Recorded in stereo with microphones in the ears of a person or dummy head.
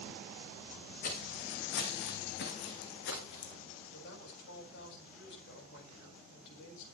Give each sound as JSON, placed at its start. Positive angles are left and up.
{"t": 1.0, "sound": "footsteps", "side_deg": 55, "distance_m": 4.0}
{"t": 3.9, "sound": "a woman speaking", "side_deg": 70, "distance_m": 6.5}